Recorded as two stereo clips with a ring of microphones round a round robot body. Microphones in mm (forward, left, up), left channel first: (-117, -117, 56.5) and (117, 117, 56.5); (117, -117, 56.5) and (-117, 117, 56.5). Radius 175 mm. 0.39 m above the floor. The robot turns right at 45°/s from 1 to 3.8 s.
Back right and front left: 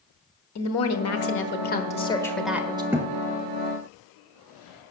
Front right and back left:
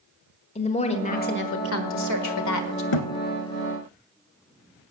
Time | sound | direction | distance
0.6 | a woman speaking | 110° right | 1.2 m
2.9 | a thud | 40° right | 0.8 m